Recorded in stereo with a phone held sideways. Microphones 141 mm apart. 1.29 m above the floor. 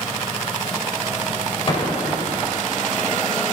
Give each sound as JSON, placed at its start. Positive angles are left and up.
{"t": 1.7, "sound": "an explosion", "side_deg": 40, "distance_m": 4.0}